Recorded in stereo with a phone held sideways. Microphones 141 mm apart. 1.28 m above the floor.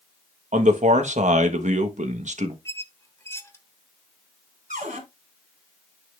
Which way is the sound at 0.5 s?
65° right (ahead or behind).